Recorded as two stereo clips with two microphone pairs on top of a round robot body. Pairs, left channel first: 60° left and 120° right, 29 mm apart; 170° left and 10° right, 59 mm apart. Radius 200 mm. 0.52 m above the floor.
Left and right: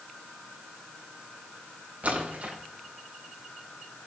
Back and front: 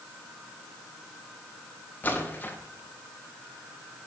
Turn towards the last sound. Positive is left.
turn(degrees=-125)